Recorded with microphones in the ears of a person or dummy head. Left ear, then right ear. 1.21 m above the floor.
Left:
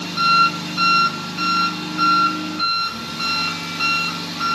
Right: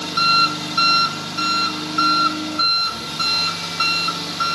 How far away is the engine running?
About 0.8 m.